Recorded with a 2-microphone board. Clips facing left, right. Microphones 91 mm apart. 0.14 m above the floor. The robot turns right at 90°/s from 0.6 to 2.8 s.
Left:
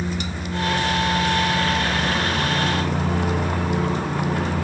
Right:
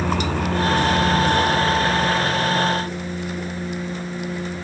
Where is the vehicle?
70° right (ahead or behind); by 4.7 s 70° left (ahead or behind).